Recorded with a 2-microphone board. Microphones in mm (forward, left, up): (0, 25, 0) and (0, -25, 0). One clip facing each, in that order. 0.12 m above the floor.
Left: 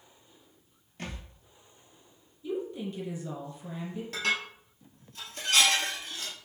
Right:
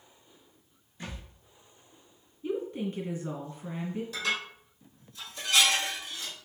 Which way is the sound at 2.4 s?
30° right (ahead or behind).